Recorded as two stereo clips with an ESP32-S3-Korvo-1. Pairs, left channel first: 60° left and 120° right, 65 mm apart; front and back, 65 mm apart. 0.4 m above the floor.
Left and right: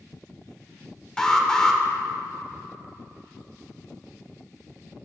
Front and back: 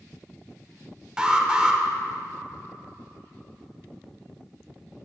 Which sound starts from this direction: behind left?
An alarm, at 1.2 s.